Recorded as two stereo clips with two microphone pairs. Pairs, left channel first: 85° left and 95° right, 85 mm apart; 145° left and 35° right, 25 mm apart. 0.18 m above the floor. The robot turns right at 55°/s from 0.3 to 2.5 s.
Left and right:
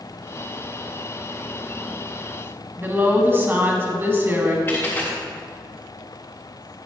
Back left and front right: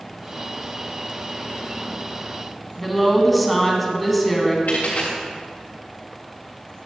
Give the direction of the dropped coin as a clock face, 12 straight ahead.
7 o'clock.